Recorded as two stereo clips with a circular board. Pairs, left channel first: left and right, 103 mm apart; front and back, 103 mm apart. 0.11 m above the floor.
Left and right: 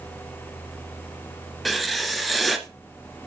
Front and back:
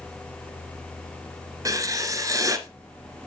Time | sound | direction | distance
1.6 | writing | straight behind | 1.3 m